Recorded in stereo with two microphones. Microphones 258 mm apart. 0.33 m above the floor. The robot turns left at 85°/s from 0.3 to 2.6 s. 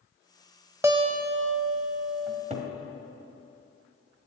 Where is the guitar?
10° right, 0.8 m; by 2.4 s 145° right, 0.8 m.